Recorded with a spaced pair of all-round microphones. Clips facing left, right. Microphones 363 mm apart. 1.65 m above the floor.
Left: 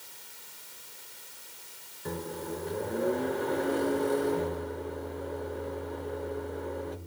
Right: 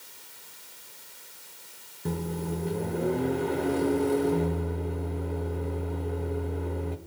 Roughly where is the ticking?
I don't hear ticking.